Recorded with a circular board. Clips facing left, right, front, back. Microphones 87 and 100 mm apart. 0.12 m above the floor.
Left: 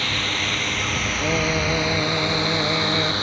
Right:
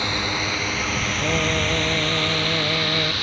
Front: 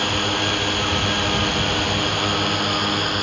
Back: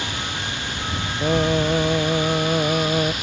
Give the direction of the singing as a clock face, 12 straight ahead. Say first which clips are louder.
Left 1 dB, back 3 dB; 6 o'clock.